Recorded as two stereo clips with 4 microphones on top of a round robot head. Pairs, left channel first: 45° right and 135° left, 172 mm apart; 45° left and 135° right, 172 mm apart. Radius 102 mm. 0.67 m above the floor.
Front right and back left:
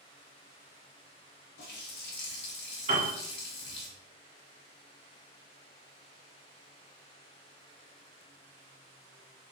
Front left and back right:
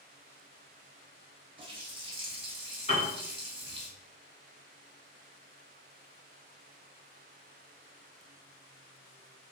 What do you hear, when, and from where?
1.6 s a running tap: 75° right, 1.0 m
2.9 s a piano: 95° left, 2.0 m